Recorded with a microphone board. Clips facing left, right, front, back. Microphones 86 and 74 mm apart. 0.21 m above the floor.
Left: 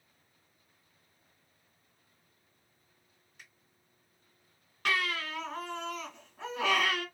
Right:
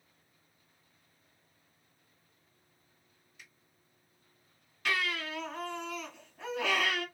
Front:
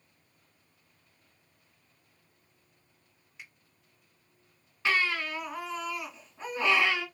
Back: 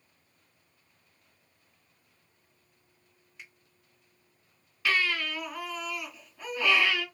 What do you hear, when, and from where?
3.4 s a finger snap: 85° left, 2.0 m
4.8 s a baby crying: 60° left, 2.5 m